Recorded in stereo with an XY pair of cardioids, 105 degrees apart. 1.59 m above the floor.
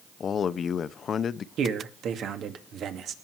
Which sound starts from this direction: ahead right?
A man speaking, at 1.6 s.